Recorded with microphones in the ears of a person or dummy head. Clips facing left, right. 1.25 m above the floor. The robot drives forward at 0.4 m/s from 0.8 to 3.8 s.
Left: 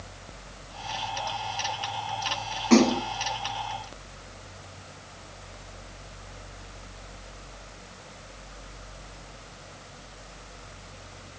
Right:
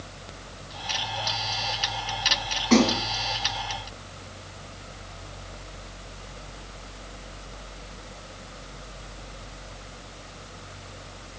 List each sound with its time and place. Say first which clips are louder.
2.7 s a splash: left 1 dB; 30° left (ahead or behind), 3 m